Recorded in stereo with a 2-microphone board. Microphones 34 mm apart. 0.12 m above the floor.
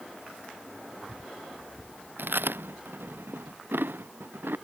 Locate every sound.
2.2 s chewing: 80° right